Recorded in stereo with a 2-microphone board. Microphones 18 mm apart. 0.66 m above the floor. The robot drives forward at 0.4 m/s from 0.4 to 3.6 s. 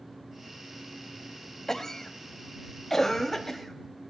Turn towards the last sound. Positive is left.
turn(degrees=15)  # may be behind; listen again after turning